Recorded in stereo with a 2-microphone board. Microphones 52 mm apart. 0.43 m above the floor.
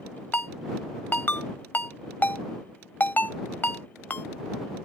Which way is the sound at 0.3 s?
35° left (ahead or behind).